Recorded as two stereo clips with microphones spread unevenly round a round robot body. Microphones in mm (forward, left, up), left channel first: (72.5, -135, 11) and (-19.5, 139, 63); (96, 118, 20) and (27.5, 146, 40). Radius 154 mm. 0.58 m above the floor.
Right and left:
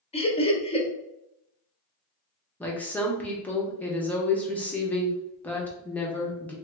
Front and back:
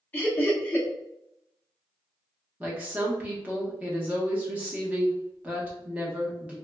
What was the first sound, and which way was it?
Laughter, 35° right.